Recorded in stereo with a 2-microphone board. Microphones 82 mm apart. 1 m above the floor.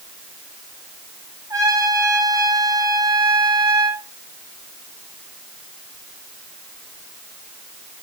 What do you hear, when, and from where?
1.5 s a trumpet: 45° right (ahead or behind), 2 m